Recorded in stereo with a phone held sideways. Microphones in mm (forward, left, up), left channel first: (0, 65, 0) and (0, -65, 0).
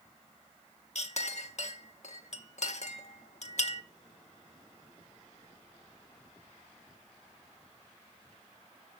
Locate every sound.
0.9 s a clink: 65° left (ahead or behind), 0.9 m